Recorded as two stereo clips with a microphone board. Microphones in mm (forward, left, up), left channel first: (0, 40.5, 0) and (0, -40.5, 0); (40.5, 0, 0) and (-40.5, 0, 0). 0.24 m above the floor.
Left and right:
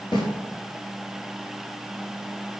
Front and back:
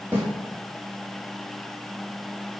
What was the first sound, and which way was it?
A snare drum, 120° left.